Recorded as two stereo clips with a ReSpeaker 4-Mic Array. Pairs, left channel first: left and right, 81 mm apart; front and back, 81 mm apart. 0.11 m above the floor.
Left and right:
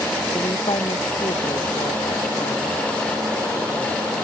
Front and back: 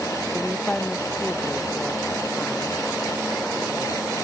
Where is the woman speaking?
80° left.